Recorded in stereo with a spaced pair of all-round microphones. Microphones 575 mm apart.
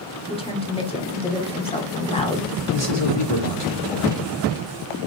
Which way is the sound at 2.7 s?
45° left (ahead or behind).